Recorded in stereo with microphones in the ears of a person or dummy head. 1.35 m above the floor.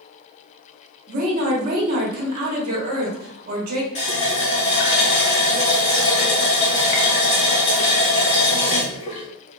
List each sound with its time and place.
1.1 s a woman speaking: 50° right (ahead or behind), 1.0 m
4.0 s a running tap: 40° left (ahead or behind), 0.7 m